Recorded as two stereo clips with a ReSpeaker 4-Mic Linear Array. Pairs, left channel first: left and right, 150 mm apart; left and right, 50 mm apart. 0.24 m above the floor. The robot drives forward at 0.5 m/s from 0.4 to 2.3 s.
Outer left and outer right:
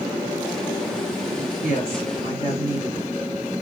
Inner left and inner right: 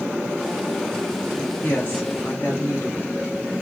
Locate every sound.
1.6 s a woman speaking: 45° left (ahead or behind), 2.5 m; by 3.1 s 40° left (ahead or behind), 2.5 m